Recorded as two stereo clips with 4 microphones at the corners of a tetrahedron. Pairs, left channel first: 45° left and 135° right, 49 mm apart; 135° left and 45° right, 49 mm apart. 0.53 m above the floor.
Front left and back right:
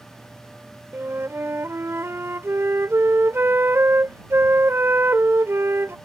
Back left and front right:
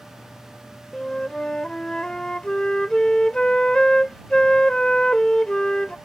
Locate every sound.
0.9 s a flute: 155° right